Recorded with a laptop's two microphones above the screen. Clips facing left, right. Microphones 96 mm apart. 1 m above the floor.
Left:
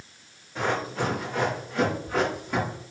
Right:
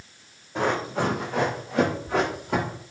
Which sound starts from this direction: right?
Running footsteps, at 0.6 s.